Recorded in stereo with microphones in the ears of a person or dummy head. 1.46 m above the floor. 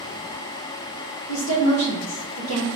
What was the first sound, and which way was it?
A woman speaking, 80° left.